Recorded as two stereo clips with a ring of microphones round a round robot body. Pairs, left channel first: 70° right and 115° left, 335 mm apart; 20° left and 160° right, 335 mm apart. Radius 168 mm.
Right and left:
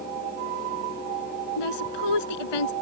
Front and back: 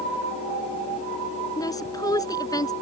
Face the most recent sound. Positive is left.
turn(degrees=-55)